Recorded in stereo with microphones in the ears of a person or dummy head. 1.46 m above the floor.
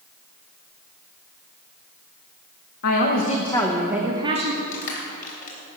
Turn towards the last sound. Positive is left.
turn(degrees=45)  # may be behind; listen again after turning